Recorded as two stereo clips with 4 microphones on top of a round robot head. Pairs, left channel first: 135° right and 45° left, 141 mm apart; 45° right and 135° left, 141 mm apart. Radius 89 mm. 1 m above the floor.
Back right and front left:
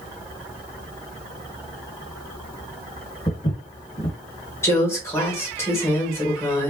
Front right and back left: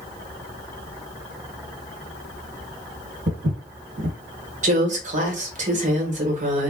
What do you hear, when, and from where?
3.3 s footsteps: 160° left, 1.5 m
4.6 s a woman speaking: 155° left, 1.2 m